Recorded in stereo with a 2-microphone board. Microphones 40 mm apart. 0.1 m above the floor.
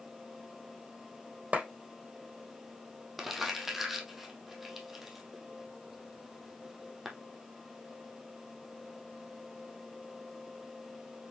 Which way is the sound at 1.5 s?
35° right (ahead or behind).